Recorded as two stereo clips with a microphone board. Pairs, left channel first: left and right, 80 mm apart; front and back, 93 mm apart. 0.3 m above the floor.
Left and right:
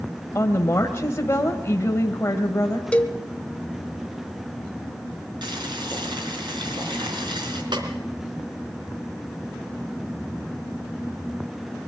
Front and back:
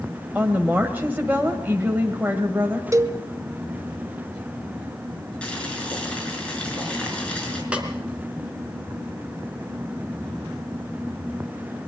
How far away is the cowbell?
About 1.0 m.